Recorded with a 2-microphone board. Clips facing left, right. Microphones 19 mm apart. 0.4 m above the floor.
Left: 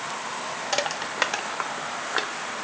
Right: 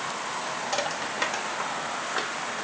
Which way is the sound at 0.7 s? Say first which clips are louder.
Left 3 dB; 25° left (ahead or behind).